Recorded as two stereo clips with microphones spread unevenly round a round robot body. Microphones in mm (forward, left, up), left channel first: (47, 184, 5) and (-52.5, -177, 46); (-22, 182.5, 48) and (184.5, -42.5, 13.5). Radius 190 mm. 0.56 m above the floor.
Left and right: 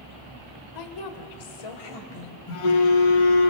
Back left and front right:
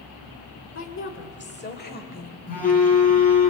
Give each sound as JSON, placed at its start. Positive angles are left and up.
{"t": 0.8, "sound": "a woman speaking", "azimuth_deg": 90, "distance_m": 2.5}
{"t": 2.5, "sound": "a phone buzzing", "azimuth_deg": 70, "distance_m": 4.5}